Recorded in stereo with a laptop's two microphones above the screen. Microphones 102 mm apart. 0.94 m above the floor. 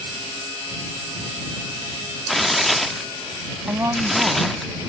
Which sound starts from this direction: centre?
Tearing paper, at 2.3 s.